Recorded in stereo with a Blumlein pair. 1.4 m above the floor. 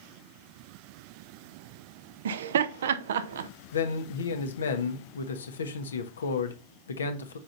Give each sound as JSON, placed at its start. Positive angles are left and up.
{"t": 2.2, "sound": "laughter", "azimuth_deg": -60, "distance_m": 0.6}
{"t": 3.7, "sound": "a man speaking", "azimuth_deg": 70, "distance_m": 1.1}